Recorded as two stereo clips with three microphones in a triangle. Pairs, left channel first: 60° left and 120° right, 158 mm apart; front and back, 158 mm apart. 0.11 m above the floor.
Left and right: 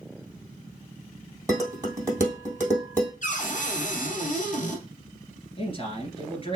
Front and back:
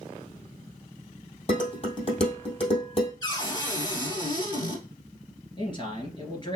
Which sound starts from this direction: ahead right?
Dishes clattering, at 1.5 s.